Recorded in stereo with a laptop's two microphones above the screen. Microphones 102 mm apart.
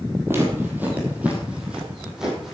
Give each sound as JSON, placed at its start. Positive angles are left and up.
{"t": 0.3, "sound": "footsteps", "side_deg": -25, "distance_m": 2.5}